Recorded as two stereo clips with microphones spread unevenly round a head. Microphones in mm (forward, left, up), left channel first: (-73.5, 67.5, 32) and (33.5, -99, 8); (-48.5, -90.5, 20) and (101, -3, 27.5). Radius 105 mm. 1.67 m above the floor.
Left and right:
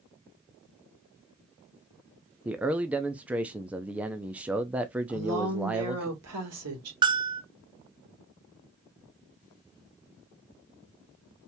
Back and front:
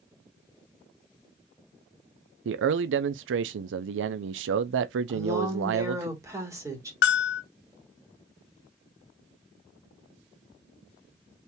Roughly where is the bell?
Behind right.